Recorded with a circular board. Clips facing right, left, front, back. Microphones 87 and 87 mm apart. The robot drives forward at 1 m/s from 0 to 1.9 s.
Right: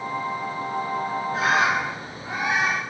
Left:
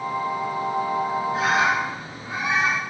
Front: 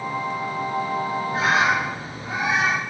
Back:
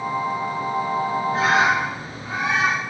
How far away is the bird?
About 3.5 m.